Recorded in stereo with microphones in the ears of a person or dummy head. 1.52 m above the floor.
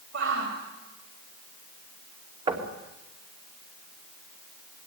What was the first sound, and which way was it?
A shout, 85° right.